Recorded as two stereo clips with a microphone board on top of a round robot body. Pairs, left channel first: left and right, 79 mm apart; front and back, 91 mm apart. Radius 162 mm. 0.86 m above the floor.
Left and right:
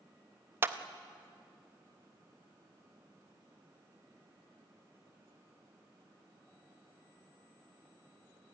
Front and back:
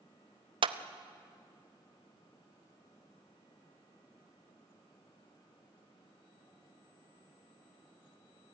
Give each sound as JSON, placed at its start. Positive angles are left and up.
{"t": 0.6, "sound": "a clap", "azimuth_deg": -155, "distance_m": 0.8}